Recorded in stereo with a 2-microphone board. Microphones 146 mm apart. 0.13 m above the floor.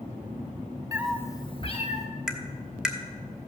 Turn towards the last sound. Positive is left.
turn(degrees=-5)  # may be behind; listen again after turning